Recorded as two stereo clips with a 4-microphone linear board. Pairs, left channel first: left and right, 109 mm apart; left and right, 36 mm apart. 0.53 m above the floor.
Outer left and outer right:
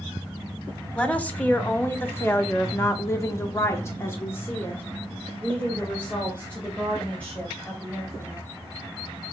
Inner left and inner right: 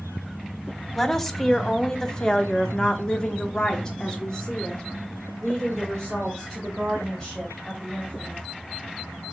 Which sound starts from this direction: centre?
A woman speaking, at 0.9 s.